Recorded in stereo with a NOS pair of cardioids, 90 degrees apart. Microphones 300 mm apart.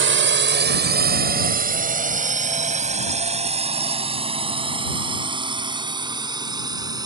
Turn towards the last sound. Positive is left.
turn(degrees=-10)